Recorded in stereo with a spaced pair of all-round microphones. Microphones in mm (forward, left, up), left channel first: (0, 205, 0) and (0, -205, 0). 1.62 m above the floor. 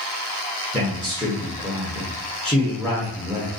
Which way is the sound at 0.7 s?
5° right (ahead or behind).